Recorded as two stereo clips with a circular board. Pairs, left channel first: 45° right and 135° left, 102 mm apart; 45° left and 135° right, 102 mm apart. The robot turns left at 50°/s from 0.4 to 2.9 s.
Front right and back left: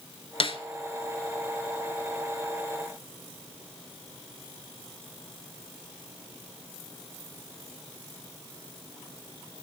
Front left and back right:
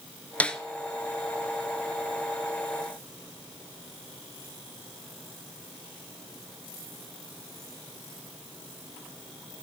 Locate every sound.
0.4 s a snare drum: 30° right, 0.5 m; by 0.6 s 40° right, 0.5 m